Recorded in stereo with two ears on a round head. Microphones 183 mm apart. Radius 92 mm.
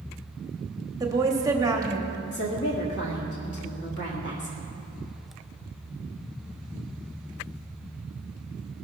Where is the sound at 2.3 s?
55° left (ahead or behind), 1.5 m.